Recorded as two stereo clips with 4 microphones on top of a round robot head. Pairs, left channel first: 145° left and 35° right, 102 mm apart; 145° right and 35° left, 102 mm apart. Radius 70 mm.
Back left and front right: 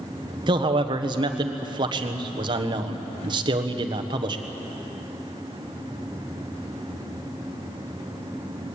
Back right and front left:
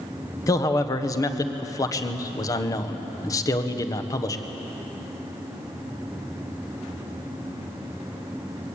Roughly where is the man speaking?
Right.